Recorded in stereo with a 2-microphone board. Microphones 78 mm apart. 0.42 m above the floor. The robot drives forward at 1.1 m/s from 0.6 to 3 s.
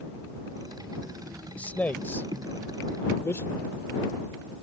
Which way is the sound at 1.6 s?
20° left (ahead or behind).